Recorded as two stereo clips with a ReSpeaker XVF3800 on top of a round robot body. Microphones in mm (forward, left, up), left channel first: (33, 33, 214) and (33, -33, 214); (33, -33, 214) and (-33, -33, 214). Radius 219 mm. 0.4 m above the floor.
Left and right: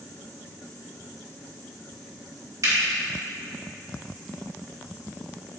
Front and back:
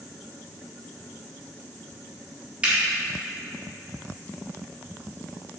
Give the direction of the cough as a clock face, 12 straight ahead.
No cough in this recording.